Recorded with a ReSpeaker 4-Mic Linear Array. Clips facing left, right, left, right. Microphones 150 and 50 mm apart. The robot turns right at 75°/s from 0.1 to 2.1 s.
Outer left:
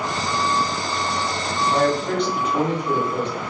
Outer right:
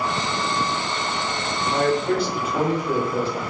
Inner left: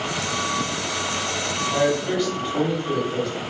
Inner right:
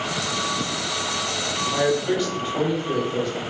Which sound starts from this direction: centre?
A man speaking, at 1.7 s.